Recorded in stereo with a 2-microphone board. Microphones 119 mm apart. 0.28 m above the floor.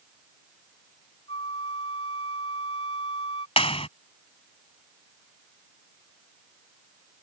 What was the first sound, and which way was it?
A flute, 55° left (ahead or behind).